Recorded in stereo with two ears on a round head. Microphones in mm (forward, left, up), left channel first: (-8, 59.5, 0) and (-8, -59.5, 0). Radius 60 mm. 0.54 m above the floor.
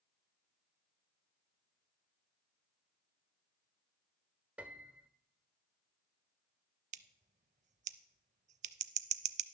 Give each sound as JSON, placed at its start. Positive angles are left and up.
{"t": 4.6, "sound": "a piano", "side_deg": -10, "distance_m": 0.7}
{"t": 6.9, "sound": "scissors", "side_deg": -55, "distance_m": 0.6}